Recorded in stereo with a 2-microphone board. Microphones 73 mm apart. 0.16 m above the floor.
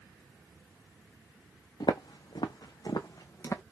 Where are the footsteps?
65° left (ahead or behind), 0.8 m; by 3.6 s 40° left (ahead or behind), 0.8 m.